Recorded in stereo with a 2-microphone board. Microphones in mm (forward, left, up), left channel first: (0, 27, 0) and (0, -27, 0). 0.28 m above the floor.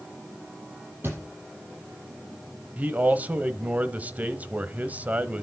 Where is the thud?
45° right (ahead or behind), 5 m.